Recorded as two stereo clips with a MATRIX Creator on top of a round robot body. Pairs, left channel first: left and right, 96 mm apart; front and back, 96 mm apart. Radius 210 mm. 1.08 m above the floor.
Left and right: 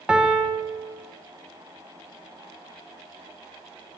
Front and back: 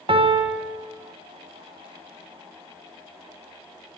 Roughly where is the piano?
Behind.